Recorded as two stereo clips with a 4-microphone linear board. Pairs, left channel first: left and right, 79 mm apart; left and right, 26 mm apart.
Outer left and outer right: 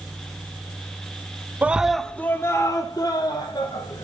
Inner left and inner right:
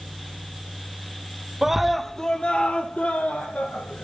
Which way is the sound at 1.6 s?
20° right (ahead or behind).